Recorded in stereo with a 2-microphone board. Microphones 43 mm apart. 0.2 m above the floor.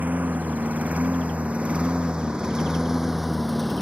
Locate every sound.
0.0 s a lawn mower: 40° right (ahead or behind); by 3.8 s 5° left (ahead or behind)